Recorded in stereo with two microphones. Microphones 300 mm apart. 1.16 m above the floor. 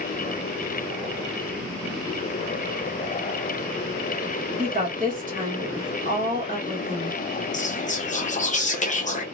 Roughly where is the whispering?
Left.